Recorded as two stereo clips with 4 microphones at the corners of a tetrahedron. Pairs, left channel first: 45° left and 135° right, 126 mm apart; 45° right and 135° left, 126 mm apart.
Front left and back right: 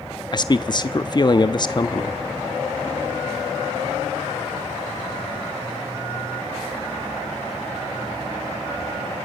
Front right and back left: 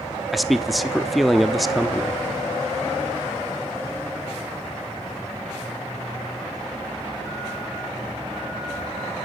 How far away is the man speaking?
About 0.7 m.